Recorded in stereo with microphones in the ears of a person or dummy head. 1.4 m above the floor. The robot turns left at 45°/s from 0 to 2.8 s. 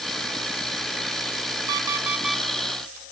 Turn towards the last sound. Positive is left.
turn(degrees=165)